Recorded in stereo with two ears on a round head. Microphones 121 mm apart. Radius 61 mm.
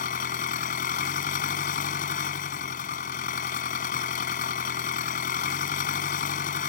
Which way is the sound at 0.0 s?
70° left (ahead or behind).